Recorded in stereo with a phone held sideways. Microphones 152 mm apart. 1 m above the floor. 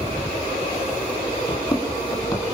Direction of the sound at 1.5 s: 25° left (ahead or behind).